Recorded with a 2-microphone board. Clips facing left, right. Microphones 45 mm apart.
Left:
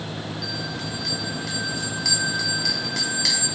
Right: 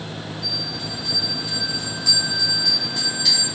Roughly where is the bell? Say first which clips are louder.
Even; left.